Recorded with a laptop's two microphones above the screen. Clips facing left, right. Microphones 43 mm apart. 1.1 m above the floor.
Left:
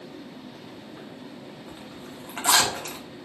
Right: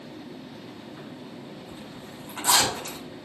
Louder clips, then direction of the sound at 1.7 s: Even; 55° left (ahead or behind).